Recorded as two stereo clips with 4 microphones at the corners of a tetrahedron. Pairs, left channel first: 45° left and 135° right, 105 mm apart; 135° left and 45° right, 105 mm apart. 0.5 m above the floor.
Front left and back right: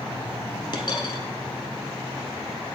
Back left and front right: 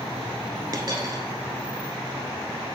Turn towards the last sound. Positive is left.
turn(degrees=5)